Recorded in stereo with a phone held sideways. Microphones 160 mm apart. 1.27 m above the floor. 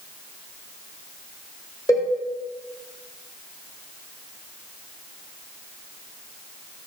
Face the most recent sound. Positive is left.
turn(degrees=25)  # may be behind; listen again after turning